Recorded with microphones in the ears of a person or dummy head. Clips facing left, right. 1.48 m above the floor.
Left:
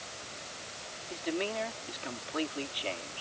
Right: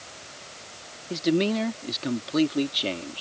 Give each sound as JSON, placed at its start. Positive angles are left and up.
{"t": 1.1, "sound": "a man speaking", "side_deg": -50}